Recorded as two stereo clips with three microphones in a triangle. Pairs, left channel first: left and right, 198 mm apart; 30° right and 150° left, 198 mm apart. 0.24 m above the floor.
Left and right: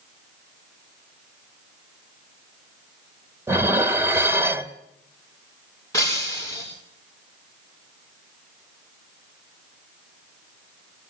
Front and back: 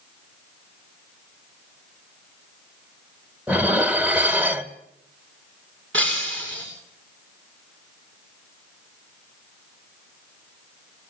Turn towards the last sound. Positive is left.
turn(degrees=165)